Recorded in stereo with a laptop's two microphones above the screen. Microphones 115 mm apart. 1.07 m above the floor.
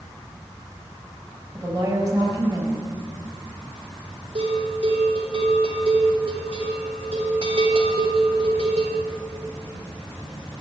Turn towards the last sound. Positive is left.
turn(degrees=-60)  # may be behind; listen again after turning